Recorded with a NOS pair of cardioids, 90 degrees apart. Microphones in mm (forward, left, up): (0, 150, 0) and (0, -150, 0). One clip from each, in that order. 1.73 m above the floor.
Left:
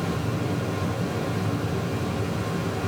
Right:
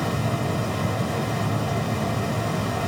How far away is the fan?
About 2.5 m.